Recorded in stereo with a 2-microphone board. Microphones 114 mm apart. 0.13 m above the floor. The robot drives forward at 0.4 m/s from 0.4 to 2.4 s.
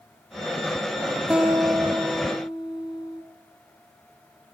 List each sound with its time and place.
1.3 s a guitar: 10° right (ahead or behind), 0.6 m; by 3.2 s 5° right (ahead or behind), 1.0 m